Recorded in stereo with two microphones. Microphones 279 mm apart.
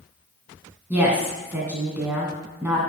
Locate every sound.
0.9 s a woman speaking: 5° right (ahead or behind), 2 m